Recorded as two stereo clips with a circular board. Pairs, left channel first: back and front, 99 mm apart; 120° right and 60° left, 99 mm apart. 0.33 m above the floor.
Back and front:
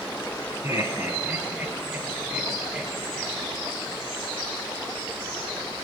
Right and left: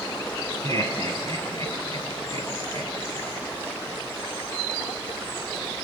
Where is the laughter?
65° left, 3 m; by 3.4 s 80° left, 7 m.